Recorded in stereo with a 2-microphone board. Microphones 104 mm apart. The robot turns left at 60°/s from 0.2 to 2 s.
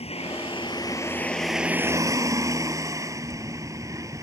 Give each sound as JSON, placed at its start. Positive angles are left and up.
{"t": 0.0, "sound": "a vehicle", "azimuth_deg": 75}